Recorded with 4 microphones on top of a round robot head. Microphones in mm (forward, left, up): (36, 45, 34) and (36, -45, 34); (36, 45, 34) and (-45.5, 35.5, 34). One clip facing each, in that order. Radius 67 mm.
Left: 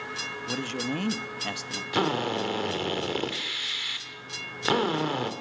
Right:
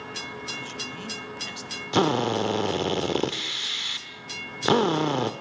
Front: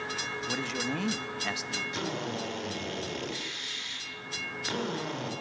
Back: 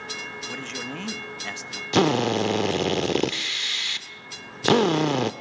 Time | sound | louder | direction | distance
0.5 | a man speaking | left 6 dB, front 2 dB | 85° left | 1.7 m
1.9 | a drill | right 4 dB, back 16 dB | 160° right | 1.2 m